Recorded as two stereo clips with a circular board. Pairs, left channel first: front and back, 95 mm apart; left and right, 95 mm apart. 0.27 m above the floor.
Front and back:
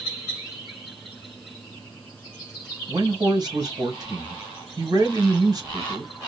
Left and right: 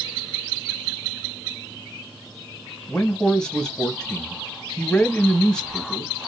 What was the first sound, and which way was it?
A man speaking, 170° left.